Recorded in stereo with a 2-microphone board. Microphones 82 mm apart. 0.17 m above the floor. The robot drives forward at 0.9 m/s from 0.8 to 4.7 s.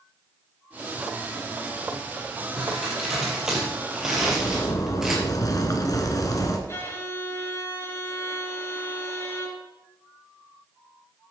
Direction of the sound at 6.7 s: 30° left (ahead or behind).